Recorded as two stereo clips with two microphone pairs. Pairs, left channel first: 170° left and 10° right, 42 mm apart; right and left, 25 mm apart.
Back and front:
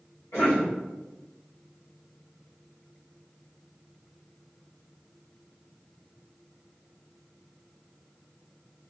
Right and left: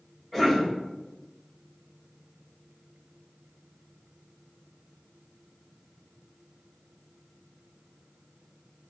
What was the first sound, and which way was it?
A cough, 165° right.